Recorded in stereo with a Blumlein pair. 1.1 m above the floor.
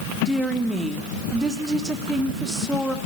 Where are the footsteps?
I don't hear footsteps.